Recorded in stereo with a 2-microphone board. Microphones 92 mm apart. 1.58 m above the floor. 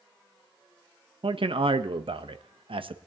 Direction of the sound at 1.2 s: 75° right (ahead or behind).